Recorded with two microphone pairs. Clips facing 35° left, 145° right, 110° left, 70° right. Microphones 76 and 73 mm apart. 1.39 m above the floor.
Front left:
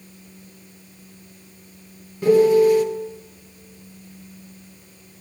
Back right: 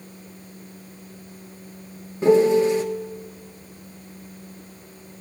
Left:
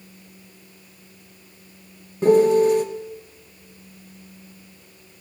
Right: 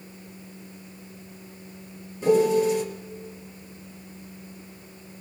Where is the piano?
150° left, 1.3 m.